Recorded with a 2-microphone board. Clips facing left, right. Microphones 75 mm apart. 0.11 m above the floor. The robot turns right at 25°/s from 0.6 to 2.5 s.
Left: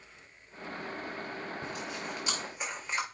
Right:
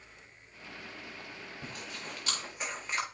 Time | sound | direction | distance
1.6 | chewing | 20° left (ahead or behind) | 4.5 m